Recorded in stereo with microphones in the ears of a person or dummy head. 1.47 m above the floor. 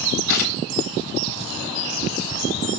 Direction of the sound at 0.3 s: 65° left (ahead or behind).